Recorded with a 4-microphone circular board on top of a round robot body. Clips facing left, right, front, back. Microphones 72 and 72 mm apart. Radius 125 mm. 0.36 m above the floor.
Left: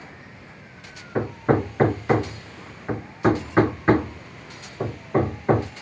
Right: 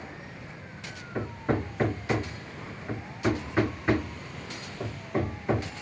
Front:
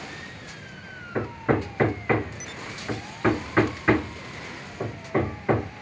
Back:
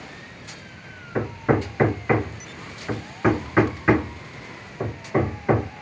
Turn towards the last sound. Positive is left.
turn(degrees=100)